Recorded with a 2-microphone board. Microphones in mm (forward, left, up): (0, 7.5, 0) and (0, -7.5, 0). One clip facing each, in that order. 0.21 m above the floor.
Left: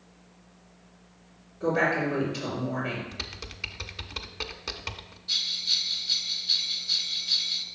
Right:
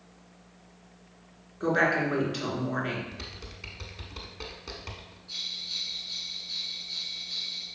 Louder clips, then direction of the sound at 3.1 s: Left 4 dB; 35° left (ahead or behind).